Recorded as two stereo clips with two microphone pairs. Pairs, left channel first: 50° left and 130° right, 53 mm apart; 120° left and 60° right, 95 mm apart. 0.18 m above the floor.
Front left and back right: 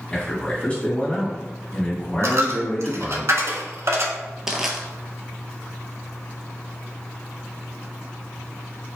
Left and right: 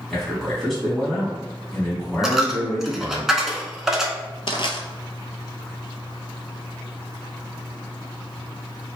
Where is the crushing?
145° left, 0.5 m.